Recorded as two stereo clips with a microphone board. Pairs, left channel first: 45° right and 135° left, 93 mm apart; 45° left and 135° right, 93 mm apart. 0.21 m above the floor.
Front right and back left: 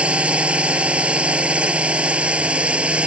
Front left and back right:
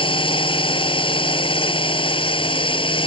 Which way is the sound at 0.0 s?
60° left.